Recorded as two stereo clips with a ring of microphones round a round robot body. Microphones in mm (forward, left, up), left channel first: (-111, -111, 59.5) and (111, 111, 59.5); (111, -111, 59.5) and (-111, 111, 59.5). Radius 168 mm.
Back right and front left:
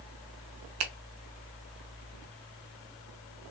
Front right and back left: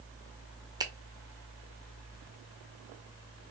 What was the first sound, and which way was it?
A finger snap, 60° left.